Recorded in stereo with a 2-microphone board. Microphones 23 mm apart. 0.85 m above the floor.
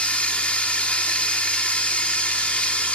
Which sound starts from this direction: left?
Running water, at 0.0 s.